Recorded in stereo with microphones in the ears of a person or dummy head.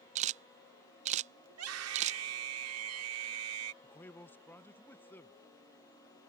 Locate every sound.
0.1 s a camera shutter: 35° right (ahead or behind)
1.5 s a scream: 85° right
3.8 s a man speaking: 5° left (ahead or behind)